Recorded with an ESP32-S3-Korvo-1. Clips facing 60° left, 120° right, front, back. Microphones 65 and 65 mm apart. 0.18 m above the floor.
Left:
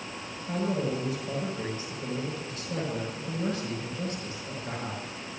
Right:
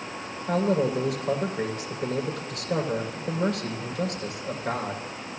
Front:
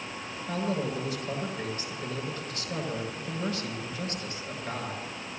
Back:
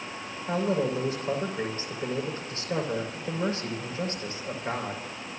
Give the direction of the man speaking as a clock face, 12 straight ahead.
4 o'clock.